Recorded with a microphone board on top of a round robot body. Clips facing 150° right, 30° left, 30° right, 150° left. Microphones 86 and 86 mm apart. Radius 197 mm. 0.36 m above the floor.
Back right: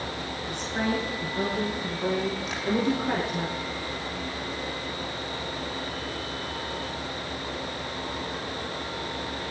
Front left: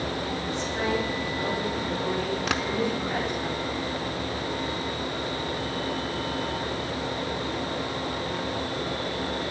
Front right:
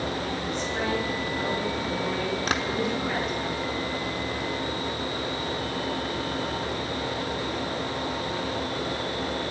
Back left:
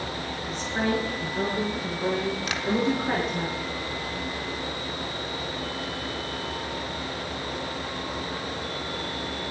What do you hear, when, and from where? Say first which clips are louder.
0.5 s a woman speaking: even, back left 3 dB; 170° right, 9 m; by 3.5 s 165° right, 10 m
2.5 s tapping: front left 6 dB, front right 4 dB; 15° left, 0.9 m